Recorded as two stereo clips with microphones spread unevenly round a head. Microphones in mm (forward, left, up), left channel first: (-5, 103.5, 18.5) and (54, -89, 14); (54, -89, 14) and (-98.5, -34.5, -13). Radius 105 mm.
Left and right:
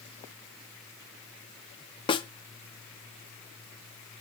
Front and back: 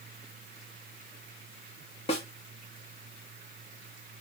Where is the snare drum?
45° left, 0.5 m.